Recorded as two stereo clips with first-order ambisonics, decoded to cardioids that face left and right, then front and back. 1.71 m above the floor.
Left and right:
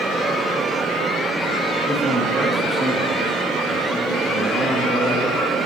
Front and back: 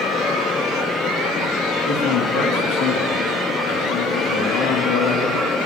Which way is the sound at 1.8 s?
10° right.